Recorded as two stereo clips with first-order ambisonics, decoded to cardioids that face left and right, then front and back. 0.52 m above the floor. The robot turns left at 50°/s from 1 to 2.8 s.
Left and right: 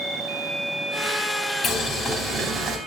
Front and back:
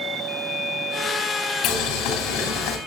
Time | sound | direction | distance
1.6 | boiling | 35° left | 2.5 m